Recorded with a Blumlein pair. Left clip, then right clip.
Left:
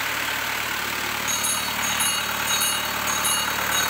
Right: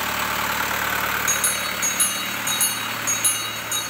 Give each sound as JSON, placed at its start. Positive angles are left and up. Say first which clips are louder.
{"t": 1.3, "sound": "a bell", "louder": "right 2 dB", "azimuth_deg": -65, "distance_m": 4.5}